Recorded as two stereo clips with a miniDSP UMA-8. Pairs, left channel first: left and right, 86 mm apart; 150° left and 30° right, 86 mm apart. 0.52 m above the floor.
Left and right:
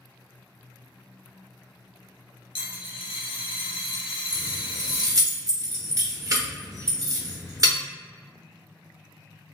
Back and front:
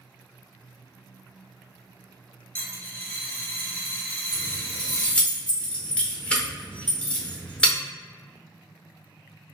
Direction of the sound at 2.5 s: 80° left.